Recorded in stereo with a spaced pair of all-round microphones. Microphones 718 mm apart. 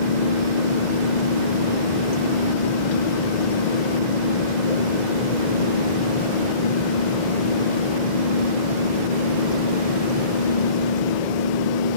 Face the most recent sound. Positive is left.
turn(degrees=80)